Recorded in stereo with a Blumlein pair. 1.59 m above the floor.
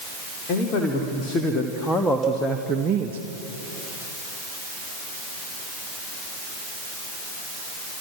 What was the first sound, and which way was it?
A man speaking, 35° left.